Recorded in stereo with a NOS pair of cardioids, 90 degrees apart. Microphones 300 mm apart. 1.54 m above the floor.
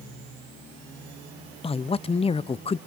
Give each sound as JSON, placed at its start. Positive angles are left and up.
{"t": 1.6, "sound": "a man speaking", "azimuth_deg": 20, "distance_m": 0.6}